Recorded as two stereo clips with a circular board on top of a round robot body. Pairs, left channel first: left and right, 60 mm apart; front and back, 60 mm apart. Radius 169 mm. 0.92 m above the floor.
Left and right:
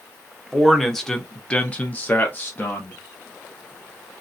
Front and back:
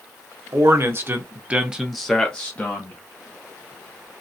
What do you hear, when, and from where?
0.5 s a man speaking: straight behind, 1.2 m; by 3.0 s 45° left, 1.2 m